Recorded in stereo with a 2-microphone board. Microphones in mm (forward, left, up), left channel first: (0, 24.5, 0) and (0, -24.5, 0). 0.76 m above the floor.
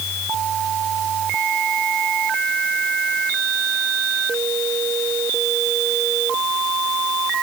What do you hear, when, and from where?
Only background noise.